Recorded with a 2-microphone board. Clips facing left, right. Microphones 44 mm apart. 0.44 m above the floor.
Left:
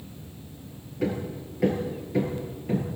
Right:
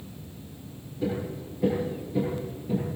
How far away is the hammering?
About 8 m.